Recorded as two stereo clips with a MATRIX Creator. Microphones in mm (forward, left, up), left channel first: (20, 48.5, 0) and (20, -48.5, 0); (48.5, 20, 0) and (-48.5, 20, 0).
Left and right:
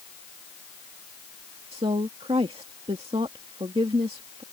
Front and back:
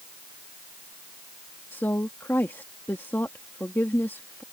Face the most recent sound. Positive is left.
turn(degrees=-70)